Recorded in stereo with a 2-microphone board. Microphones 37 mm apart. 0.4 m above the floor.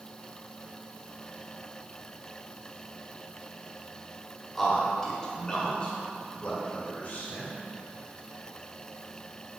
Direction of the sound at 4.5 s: Centre (ahead or behind).